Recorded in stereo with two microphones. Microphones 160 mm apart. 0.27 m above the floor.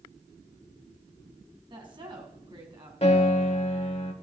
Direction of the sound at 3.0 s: 40° left (ahead or behind).